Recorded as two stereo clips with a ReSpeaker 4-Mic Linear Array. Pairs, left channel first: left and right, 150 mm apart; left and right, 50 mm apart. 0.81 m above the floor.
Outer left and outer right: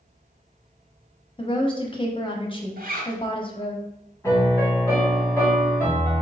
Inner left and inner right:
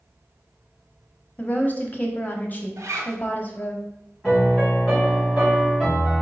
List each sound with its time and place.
1.4 s a woman speaking: 35° left (ahead or behind), 1.0 m
2.8 s a zipper: 80° right, 1.0 m
4.2 s a piano: 20° left (ahead or behind), 2.0 m